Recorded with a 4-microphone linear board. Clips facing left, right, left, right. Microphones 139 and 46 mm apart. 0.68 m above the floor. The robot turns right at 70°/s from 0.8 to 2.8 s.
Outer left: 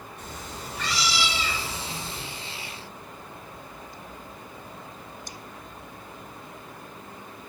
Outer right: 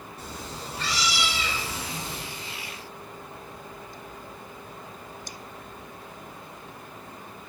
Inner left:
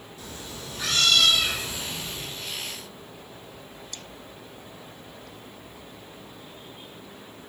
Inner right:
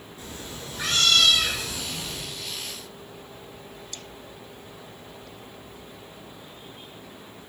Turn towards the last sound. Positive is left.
turn(degrees=-5)